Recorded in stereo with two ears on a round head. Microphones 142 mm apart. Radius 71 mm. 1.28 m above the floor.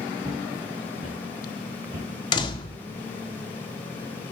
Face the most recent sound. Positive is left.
turn(degrees=30)  # may be behind; listen again after turning